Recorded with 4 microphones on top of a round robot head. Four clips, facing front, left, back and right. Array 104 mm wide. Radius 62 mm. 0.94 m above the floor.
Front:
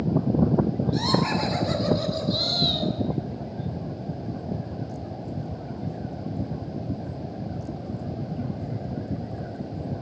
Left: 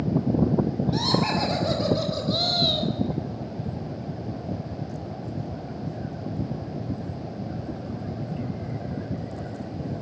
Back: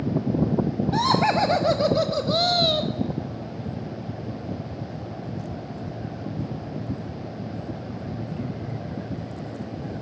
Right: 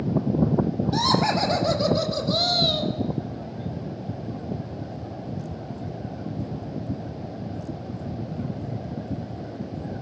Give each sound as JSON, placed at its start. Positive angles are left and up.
{"t": 0.9, "sound": "laughter", "azimuth_deg": -160, "distance_m": 5.5}